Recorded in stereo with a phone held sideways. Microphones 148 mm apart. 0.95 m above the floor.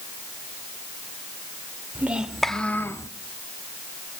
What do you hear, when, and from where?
1.9 s a child speaking: 10° right (ahead or behind), 1.8 m; by 3.1 s 25° left (ahead or behind), 1.4 m